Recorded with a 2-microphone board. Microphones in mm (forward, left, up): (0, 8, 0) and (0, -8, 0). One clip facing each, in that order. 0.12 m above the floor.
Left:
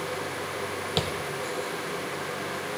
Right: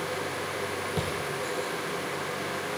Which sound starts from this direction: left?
Tapping, at 1.0 s.